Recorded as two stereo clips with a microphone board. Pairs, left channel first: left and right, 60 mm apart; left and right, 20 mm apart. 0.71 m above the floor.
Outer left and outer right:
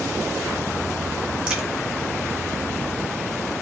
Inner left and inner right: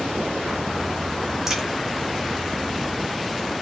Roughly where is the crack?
Centre.